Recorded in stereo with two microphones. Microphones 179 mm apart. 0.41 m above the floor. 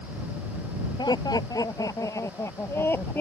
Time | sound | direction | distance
1.0 | laughter | 20° left (ahead or behind) | ?